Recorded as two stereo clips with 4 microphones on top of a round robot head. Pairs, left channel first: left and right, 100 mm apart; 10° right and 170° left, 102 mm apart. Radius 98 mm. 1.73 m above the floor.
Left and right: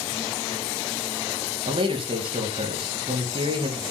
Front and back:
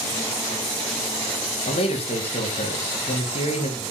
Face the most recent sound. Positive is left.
turn(degrees=-45)